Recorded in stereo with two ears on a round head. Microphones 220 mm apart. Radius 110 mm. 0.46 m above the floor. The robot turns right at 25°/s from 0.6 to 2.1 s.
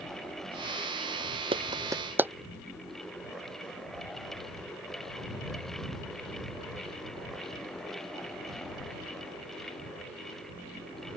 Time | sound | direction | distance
1.5 | a clap | 25° right (ahead or behind) | ?